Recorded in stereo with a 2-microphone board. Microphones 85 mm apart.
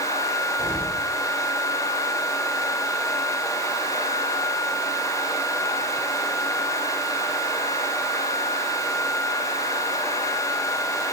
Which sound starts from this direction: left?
An explosion, at 0.6 s.